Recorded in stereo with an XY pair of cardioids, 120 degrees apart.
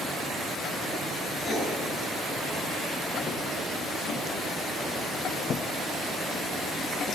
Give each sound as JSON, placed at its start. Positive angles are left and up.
{"t": 1.4, "sound": "writing", "azimuth_deg": 30, "distance_m": 6.5}